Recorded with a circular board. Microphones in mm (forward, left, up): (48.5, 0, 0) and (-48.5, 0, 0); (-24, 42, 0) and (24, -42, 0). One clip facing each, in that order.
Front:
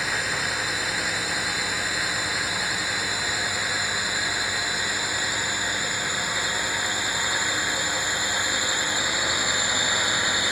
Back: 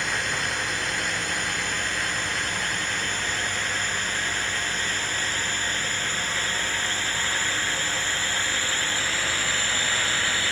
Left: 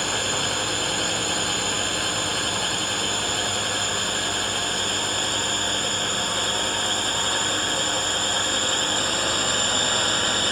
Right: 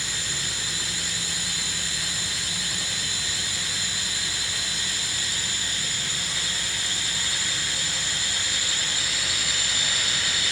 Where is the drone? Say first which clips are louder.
Even, left 9 dB; 85° left; by 10.5 s 75° left.